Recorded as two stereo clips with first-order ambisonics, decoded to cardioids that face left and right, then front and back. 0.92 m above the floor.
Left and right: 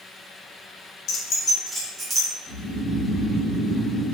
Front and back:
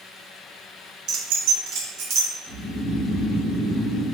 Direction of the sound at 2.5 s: 145° left.